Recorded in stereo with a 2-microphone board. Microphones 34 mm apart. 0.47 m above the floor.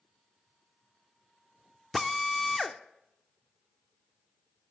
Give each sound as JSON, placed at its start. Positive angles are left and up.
{"t": 1.9, "sound": "a drill", "side_deg": 5, "distance_m": 0.6}